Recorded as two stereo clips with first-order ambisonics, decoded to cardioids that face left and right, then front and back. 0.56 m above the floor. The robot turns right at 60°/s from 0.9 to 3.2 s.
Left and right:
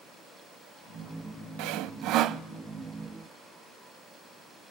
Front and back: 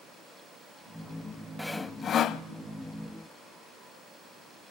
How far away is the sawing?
About 0.6 m.